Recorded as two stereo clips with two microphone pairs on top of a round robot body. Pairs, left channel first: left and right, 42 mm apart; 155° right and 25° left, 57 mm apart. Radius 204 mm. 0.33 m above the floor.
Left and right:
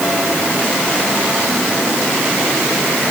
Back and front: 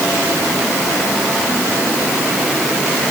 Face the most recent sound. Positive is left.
No sound to turn to.